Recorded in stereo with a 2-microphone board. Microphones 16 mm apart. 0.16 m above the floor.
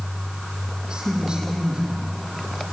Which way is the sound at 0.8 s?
50° right (ahead or behind).